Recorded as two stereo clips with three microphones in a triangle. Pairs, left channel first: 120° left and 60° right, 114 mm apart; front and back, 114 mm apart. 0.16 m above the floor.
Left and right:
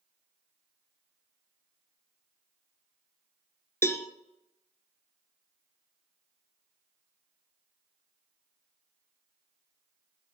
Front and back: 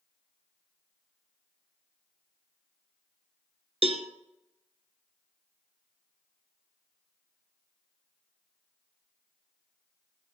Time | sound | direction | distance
3.8 | a cowbell | 175° right | 0.9 m